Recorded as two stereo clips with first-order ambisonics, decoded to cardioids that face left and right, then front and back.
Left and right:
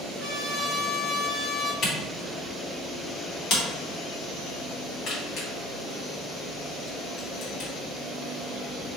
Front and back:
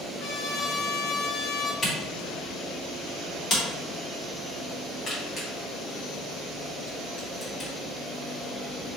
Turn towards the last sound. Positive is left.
turn(degrees=50)